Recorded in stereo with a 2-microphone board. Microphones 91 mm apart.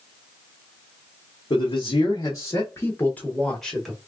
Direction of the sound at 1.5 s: 70° left (ahead or behind).